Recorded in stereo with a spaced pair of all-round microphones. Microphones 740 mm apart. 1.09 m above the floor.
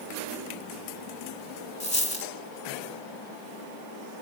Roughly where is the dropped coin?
Left.